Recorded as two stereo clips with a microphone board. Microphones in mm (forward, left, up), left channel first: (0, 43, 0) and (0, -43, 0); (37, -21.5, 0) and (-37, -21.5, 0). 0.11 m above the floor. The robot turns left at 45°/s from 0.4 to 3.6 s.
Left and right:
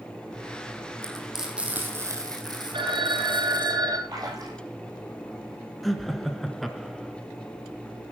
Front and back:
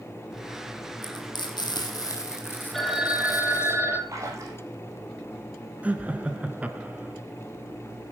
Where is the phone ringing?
90° right, 1.9 m; by 4.0 s 125° right, 1.9 m.